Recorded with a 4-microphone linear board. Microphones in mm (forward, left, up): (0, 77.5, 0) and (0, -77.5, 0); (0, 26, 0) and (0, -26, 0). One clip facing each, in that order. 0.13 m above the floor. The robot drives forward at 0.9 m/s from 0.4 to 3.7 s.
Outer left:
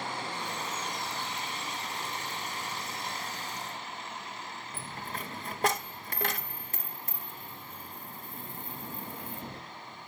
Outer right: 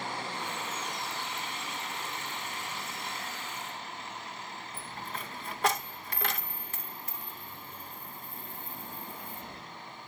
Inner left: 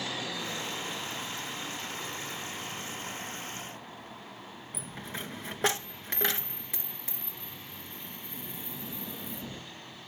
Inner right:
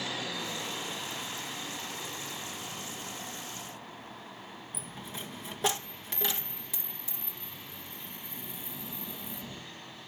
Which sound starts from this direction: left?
A dropped coin, at 4.7 s.